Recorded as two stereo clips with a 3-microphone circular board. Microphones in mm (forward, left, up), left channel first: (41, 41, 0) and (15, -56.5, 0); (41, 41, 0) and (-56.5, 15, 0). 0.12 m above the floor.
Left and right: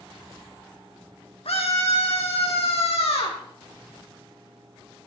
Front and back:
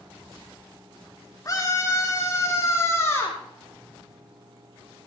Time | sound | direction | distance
1.4 | a scream | 70° left | 4.5 m